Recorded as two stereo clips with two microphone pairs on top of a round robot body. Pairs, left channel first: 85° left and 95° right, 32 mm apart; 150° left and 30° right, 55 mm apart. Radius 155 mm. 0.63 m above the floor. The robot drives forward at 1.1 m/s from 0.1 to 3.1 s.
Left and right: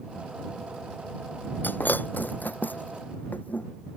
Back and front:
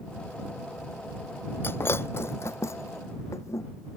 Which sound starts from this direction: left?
Breaking glass, at 1.6 s.